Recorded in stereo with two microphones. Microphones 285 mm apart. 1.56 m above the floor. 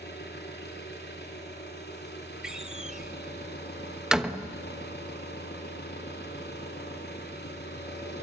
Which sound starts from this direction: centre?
A door slam, at 2.4 s.